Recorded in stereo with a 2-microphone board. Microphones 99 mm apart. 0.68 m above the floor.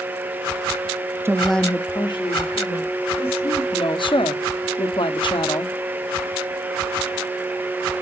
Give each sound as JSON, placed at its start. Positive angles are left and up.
{"t": 1.2, "sound": "a woman speaking", "side_deg": -25, "distance_m": 0.6}
{"t": 3.7, "sound": "a woman speaking", "side_deg": 55, "distance_m": 0.9}